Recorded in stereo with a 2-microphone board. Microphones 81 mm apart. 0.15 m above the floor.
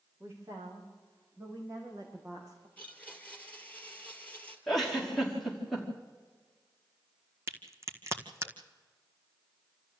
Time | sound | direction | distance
0.2 | a woman speaking | 35° right (ahead or behind) | 8 m
2.8 | a blender | 20° left (ahead or behind) | 2.5 m
4.7 | a giggle | centre (ahead or behind) | 5.5 m
7.5 | a crack | 35° right (ahead or behind) | 1.8 m